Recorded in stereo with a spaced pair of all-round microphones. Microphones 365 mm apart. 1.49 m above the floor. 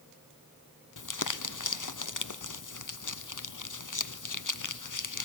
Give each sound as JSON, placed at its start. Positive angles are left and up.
{"t": 1.0, "sound": "crumpling", "side_deg": 60, "distance_m": 0.6}